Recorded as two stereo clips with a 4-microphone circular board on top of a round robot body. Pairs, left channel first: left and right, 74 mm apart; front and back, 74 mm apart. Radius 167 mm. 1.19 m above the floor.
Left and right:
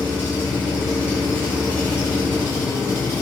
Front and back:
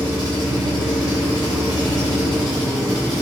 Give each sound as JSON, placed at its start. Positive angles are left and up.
{"t": 0.0, "sound": "an engine running", "azimuth_deg": -155, "distance_m": 3.5}